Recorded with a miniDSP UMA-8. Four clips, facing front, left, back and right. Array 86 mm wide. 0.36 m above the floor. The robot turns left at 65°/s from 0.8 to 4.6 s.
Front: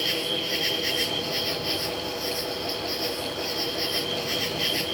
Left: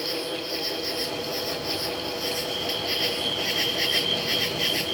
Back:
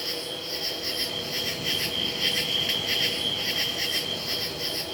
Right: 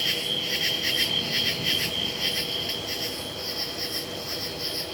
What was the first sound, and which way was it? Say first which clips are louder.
An insect: left 3 dB, front 6 dB; 55° right.